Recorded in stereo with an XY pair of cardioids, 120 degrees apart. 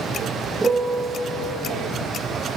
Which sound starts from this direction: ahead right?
A piano, at 0.6 s.